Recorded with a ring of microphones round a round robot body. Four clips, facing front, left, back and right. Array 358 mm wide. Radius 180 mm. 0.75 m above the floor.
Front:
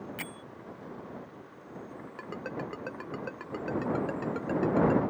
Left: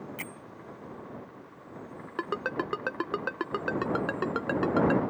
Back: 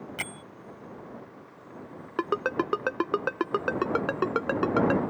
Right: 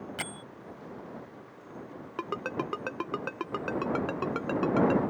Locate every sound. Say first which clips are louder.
0.2 s a bell: right 3 dB, back 3 dB; 130° right
2.2 s a ringtone: left 2 dB, back 11 dB; 170° left